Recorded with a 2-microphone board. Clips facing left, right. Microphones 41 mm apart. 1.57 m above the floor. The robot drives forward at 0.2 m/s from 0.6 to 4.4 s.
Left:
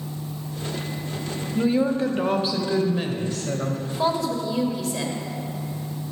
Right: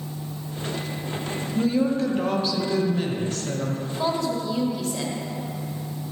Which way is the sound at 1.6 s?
20° left (ahead or behind).